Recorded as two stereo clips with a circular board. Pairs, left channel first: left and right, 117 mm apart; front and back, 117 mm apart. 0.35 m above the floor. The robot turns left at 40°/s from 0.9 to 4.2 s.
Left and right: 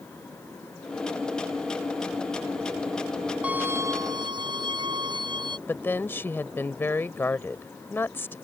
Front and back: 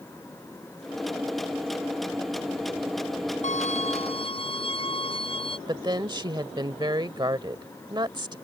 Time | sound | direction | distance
3.4 | a violin | 10° right | ?
5.7 | a woman speaking | 155° left | ?